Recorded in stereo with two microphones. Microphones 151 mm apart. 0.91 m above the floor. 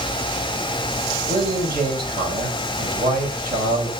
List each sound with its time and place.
1.3 s a man speaking: 60° right (ahead or behind), 6.5 m